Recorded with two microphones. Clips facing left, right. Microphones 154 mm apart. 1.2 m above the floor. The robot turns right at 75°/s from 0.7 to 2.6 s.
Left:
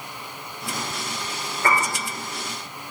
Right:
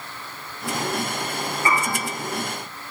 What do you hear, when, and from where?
1.6 s a piano: 80° left, 3 m